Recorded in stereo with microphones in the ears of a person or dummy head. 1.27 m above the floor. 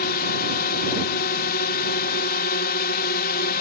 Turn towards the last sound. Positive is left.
turn(degrees=50)  # may be behind; listen again after turning